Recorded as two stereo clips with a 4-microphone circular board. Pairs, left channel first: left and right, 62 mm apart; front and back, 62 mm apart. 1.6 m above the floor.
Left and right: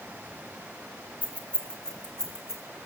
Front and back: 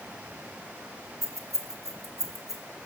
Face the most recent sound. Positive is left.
turn(degrees=175)